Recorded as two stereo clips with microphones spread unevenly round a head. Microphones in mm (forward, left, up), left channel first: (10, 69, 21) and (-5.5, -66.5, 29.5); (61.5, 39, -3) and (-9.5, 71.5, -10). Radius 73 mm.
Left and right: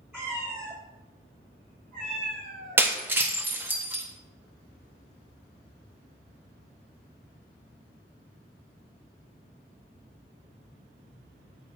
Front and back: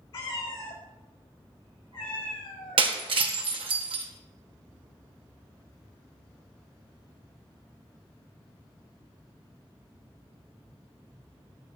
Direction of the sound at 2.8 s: 170° right.